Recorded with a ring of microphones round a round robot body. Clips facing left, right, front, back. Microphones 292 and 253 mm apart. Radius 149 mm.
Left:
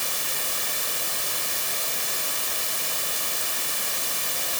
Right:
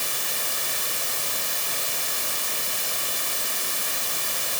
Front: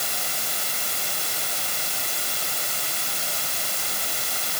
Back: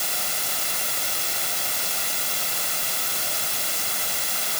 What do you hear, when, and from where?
Only background noise.